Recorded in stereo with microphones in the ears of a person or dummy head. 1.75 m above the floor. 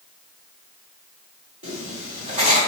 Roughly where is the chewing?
I don't hear chewing.